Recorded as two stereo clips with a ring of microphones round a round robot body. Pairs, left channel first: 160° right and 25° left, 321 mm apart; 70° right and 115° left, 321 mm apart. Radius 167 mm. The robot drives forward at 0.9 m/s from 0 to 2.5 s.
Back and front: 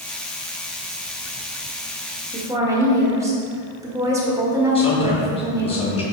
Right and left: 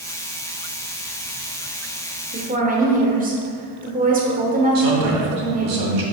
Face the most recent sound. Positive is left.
turn(degrees=130)